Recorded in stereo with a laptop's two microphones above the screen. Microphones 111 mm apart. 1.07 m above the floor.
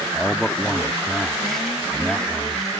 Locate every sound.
0.1 s a man speaking: 5° left (ahead or behind)